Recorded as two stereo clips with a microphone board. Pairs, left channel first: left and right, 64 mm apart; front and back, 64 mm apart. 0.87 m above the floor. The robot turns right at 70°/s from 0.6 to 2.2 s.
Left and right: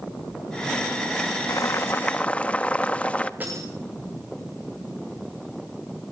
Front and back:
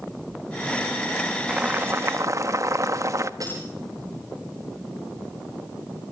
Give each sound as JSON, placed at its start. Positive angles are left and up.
{"t": 1.5, "sound": "boiling", "azimuth_deg": 105, "distance_m": 1.2}
{"t": 3.4, "sound": "breaking glass", "azimuth_deg": -155, "distance_m": 10.0}